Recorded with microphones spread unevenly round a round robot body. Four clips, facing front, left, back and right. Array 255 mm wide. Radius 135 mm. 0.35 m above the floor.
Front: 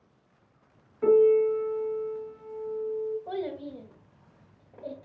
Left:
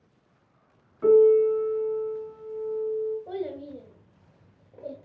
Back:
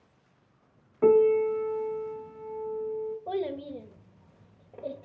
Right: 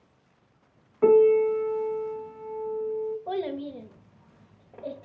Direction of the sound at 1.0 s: 170° right.